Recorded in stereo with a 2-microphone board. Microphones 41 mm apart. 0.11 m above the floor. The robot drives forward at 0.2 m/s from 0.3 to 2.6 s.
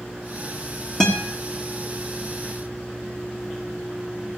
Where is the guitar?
10° left (ahead or behind), 2.5 m.